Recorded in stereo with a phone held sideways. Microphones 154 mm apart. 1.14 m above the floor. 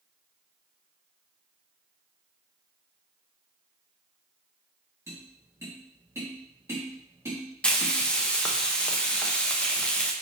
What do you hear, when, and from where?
5.1 s tapping: 15° right (ahead or behind), 1.5 m
7.6 s frying: 5° left (ahead or behind), 0.5 m